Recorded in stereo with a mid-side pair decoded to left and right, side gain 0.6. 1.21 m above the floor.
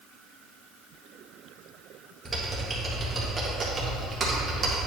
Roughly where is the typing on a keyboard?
Ahead.